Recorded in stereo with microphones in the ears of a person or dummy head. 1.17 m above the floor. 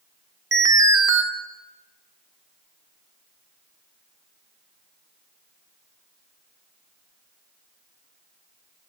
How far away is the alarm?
About 1.3 m.